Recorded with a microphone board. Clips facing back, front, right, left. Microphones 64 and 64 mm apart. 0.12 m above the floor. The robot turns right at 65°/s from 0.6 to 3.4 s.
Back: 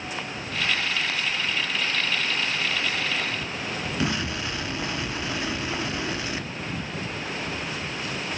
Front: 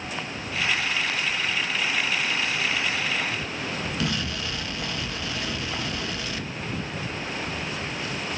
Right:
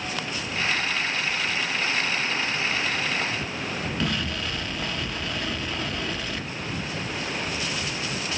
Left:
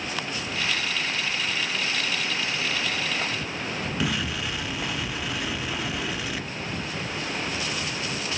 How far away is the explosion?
About 0.8 m.